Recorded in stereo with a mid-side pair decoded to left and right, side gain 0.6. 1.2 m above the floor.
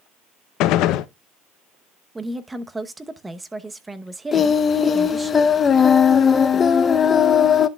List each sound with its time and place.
0.6 s a gunshot: 70° left, 0.6 m
2.1 s a woman speaking: 15° right, 0.9 m
4.3 s singing: 35° left, 0.8 m